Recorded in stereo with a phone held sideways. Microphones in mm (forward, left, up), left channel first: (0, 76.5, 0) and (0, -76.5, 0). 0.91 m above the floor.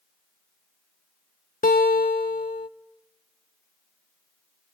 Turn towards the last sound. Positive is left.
turn(degrees=70)  # may be behind; listen again after turning